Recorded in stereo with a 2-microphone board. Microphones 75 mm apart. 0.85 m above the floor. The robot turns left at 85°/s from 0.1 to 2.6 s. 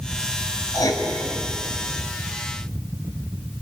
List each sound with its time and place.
0.7 s writing: 45° left (ahead or behind), 3 m; by 1.0 s 70° left (ahead or behind), 3 m